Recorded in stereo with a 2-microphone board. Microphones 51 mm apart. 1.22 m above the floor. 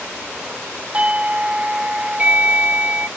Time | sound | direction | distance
0.9 | a doorbell | 30° right (ahead or behind) | 0.9 m